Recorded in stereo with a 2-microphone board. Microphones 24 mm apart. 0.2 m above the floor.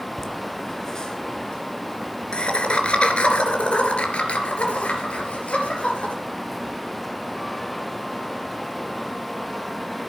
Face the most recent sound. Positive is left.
turn(degrees=75)  # may be behind; listen again after turning